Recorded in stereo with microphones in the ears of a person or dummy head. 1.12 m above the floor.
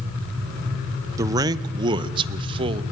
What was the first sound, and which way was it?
A man speaking, 20° right (ahead or behind).